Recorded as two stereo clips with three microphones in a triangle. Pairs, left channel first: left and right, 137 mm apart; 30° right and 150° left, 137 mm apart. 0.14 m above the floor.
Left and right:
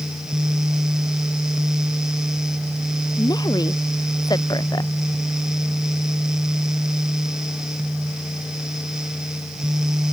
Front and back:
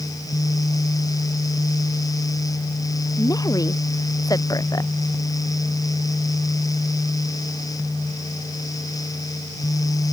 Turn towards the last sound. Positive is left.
turn(degrees=30)